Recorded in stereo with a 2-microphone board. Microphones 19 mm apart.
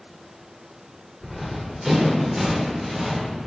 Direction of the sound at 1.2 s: 25° right (ahead or behind).